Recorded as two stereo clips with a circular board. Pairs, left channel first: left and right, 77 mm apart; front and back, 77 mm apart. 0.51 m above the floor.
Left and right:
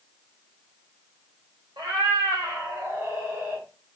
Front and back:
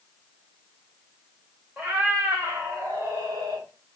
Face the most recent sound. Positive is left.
turn(degrees=-160)